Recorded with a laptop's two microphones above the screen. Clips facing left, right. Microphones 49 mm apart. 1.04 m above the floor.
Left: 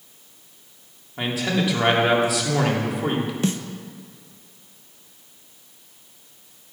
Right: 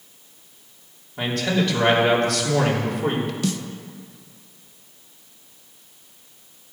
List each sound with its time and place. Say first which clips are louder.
1.2 s a man speaking: right 1 dB; 10° left (ahead or behind), 3 m
3.4 s a snare drum: left 3 dB; 30° left (ahead or behind), 0.8 m